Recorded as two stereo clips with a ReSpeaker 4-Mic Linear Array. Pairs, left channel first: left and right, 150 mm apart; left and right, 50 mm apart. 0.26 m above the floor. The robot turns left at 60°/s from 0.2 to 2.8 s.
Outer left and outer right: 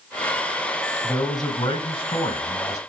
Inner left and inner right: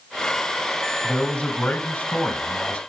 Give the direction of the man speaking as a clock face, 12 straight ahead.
7 o'clock.